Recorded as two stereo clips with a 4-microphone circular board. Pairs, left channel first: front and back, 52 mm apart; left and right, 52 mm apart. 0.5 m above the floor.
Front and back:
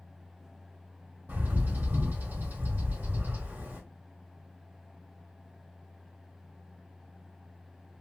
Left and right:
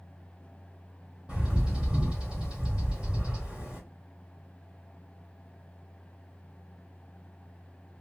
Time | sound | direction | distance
1.3 | a bird | 155° right | 1.5 m